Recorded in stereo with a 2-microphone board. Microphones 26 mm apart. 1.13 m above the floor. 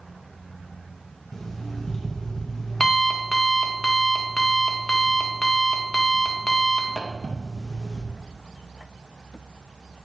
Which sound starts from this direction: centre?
An alarm clock, at 1.3 s.